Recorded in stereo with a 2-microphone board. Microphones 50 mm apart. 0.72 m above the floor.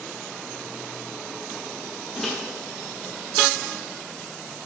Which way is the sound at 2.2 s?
10° left (ahead or behind).